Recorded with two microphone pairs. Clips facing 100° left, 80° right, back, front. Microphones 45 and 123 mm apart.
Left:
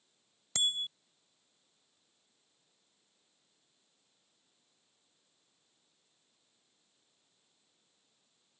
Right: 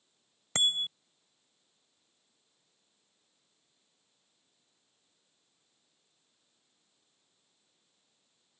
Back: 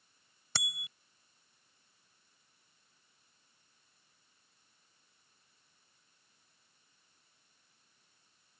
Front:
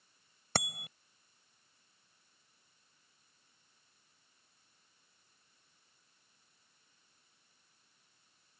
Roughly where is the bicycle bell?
Ahead right.